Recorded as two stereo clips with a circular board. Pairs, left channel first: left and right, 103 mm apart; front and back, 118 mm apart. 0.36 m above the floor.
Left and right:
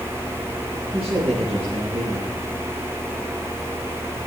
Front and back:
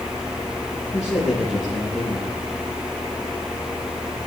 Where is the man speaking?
90° right, 7.5 m.